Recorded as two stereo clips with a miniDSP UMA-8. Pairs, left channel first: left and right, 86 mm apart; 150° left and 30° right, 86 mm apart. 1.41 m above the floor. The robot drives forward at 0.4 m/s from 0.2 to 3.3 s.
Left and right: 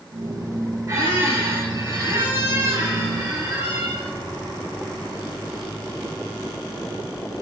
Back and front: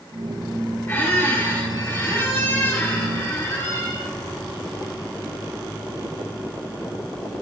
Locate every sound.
0.9 s a squeak: 145° right, 3.5 m; by 4.1 s 150° right, 4.5 m